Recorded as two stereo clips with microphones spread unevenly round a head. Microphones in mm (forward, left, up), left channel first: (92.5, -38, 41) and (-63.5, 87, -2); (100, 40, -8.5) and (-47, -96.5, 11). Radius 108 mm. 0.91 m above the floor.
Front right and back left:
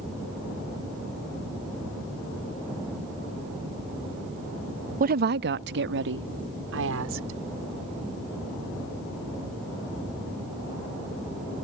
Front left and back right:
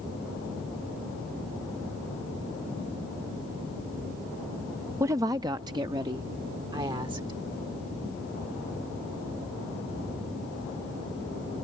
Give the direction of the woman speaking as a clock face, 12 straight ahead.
7 o'clock.